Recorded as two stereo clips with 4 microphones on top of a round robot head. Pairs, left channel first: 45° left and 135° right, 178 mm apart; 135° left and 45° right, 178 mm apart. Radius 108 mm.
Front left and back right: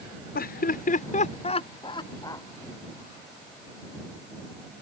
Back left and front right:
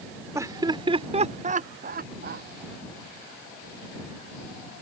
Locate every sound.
0.3 s laughter: 30° left; by 2.5 s 25° right